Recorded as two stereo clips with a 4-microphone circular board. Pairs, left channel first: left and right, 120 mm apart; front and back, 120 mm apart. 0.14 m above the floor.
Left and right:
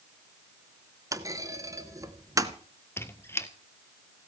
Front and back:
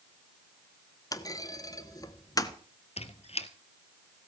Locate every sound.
1.1 s a clunk: 40° right, 1.1 m
3.0 s a squeak: 20° left, 1.2 m